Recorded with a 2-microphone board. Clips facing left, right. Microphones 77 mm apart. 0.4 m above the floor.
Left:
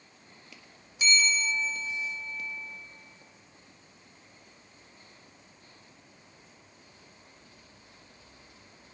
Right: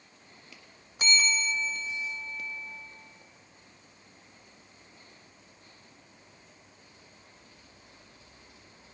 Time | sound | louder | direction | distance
1.0 | a bell | left 1 dB | 50° right (ahead or behind) | 0.7 m